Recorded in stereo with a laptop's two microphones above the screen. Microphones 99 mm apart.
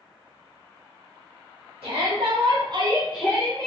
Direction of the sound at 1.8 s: 75° right (ahead or behind).